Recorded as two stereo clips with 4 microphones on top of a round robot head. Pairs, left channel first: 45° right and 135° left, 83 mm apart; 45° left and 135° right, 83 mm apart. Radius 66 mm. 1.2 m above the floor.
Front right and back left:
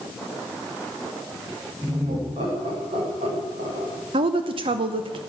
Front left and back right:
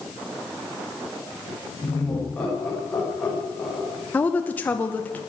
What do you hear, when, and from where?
1.8 s laughter: 115° left, 6 m; by 3.9 s 130° left, 5 m
4.1 s a woman speaking: 115° left, 0.9 m